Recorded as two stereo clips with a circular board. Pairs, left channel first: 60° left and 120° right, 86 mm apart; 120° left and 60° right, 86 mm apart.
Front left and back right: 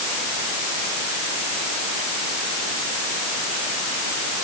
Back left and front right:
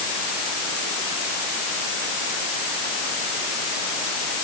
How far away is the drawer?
I don't hear a drawer.